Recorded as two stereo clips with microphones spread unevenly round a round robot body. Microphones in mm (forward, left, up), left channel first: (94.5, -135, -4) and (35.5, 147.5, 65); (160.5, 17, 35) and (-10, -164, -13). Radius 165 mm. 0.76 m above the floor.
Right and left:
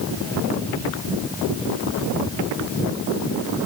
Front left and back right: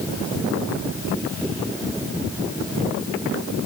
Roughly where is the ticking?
I don't hear ticking.